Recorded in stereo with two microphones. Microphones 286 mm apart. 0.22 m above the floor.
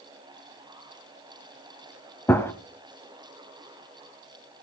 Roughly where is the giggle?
I don't hear a giggle.